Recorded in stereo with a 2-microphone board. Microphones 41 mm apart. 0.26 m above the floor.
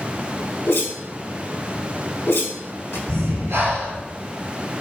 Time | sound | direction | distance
0.7 | a whoosh | 70° left (ahead or behind) | 0.5 m
3.1 | breathing | 80° right | 0.9 m